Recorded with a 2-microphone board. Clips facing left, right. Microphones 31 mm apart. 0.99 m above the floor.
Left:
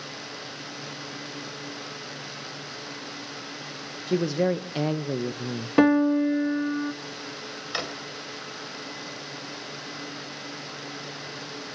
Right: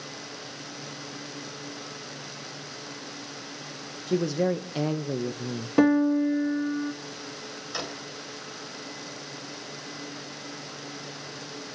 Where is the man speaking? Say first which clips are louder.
Left 1 dB; 20° left (ahead or behind), 0.8 m.